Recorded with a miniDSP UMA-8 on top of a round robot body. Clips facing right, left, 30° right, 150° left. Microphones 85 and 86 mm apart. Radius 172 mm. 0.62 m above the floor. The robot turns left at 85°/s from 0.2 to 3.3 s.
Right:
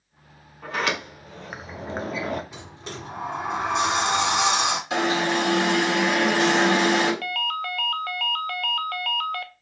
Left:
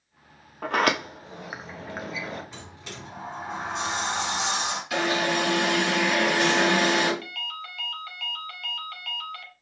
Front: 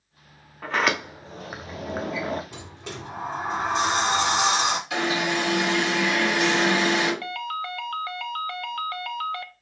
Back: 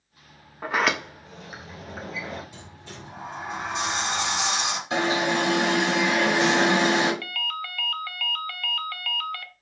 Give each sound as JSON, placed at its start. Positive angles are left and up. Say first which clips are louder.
{"t": 0.6, "sound": "a sliding door", "louder": "left 3 dB, even", "azimuth_deg": 80, "distance_m": 1.3}
{"t": 2.5, "sound": "a sliding door", "louder": "right 4 dB, front 5 dB", "azimuth_deg": -10, "distance_m": 1.3}
{"t": 4.9, "sound": "an alarm", "louder": "even, back 1 dB", "azimuth_deg": -150, "distance_m": 5.0}
{"t": 7.2, "sound": "a ringtone", "louder": "right 10 dB, front 3 dB", "azimuth_deg": -90, "distance_m": 0.9}